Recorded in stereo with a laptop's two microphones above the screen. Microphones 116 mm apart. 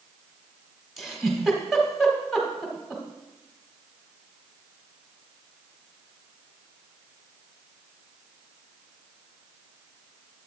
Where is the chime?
No chime in this recording.